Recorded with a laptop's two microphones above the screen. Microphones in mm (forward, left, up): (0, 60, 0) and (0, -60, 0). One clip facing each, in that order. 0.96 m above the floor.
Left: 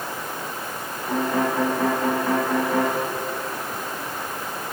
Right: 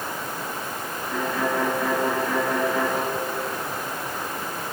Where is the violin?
90° left, 5 m.